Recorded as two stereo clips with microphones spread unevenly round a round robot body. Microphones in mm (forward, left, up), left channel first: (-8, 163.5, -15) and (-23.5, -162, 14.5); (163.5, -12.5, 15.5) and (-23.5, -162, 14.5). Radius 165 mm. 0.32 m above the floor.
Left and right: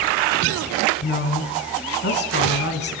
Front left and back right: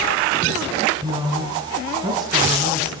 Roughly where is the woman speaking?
Behind left.